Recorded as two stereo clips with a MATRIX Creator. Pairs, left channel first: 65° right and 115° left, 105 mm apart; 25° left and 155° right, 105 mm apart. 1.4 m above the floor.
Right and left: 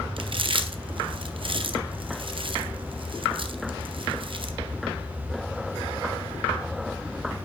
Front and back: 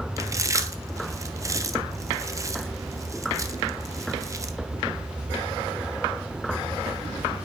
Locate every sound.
0.2 s chewing: 145° left, 0.6 m